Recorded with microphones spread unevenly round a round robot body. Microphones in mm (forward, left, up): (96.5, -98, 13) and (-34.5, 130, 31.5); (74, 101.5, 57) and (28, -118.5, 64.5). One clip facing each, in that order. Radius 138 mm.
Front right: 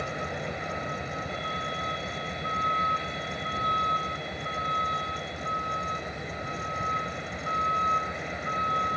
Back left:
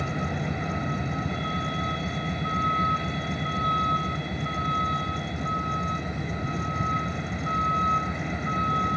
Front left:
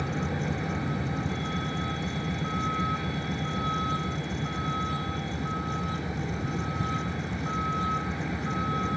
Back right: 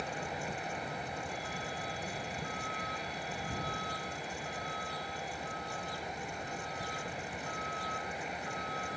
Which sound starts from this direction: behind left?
A vehicle, at 0.0 s.